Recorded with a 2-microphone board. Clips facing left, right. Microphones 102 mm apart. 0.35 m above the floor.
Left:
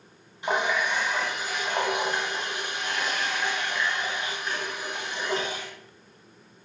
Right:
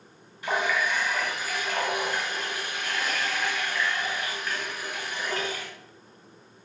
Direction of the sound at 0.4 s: 20° left (ahead or behind).